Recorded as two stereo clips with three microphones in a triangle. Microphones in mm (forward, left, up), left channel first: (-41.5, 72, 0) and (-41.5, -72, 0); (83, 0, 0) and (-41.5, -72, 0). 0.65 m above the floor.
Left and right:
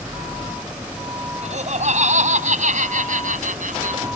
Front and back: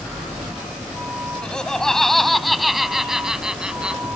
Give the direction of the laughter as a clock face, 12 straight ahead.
2 o'clock.